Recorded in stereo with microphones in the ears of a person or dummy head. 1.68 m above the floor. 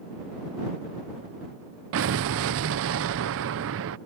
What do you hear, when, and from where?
1.9 s an explosion: 65° right (ahead or behind)